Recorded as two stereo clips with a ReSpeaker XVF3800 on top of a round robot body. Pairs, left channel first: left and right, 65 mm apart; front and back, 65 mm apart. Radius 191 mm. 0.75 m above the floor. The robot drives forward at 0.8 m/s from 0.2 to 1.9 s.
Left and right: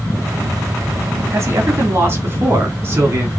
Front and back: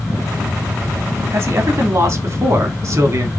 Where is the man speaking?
135° right, 2.5 m; by 3.3 s 145° right, 3 m.